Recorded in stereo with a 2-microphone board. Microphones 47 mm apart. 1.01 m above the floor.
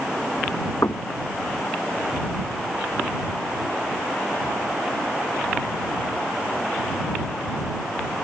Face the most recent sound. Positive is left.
turn(degrees=65)  # may be behind; listen again after turning